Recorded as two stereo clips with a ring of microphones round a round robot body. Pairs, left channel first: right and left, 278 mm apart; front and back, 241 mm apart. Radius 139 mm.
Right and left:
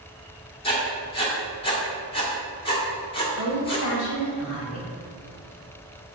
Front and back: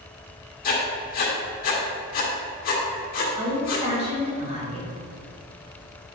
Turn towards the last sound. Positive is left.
turn(degrees=-115)